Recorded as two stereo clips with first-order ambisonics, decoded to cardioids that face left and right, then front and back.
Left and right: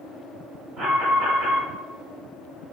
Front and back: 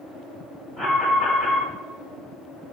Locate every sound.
0.8 s an alarm: 75° right, 1.2 m